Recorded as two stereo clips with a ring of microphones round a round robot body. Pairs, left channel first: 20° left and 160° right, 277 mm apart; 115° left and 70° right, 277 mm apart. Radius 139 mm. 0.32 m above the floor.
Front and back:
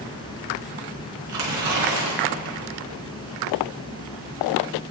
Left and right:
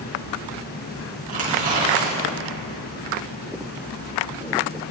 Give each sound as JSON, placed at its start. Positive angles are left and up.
{"t": 1.3, "sound": "tearing paper", "azimuth_deg": -130, "distance_m": 4.0}